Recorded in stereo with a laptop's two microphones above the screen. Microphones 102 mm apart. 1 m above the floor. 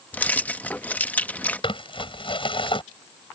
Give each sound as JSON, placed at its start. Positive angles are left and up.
{"t": 0.1, "sound": "keys jangling", "side_deg": 15}
{"t": 1.6, "sound": "crumpling", "side_deg": 60}